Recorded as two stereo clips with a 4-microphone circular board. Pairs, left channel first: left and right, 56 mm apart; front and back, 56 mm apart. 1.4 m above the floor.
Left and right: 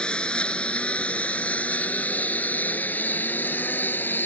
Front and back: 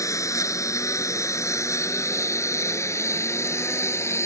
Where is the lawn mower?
20° left; by 4.3 s 40° left.